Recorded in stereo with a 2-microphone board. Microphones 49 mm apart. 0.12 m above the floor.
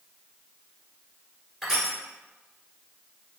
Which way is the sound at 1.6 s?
Centre (ahead or behind).